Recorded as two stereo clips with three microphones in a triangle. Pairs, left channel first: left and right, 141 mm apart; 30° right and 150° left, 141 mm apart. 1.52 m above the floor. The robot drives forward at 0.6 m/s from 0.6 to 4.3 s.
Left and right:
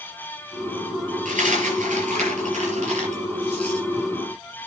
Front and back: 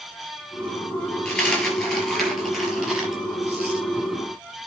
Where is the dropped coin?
115° right, 5 m; by 3.8 s 130° right, 6 m.